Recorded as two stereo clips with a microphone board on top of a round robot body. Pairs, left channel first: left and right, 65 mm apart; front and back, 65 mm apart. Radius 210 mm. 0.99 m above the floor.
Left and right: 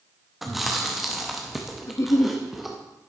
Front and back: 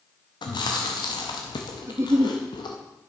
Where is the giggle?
135° left, 0.7 m.